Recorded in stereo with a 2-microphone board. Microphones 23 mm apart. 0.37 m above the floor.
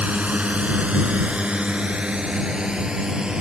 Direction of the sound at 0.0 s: 70° right (ahead or behind).